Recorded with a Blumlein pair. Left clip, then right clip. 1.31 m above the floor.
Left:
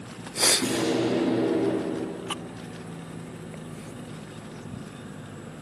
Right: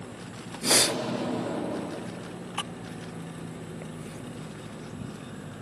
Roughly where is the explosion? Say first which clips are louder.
Right 1 dB; ahead left.